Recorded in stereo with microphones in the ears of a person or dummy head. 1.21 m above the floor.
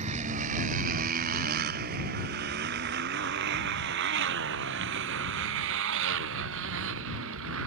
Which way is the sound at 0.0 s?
40° right (ahead or behind).